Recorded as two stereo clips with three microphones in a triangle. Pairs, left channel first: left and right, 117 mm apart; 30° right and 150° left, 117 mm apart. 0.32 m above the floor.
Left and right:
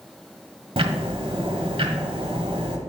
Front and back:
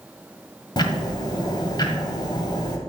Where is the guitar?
No guitar in this recording.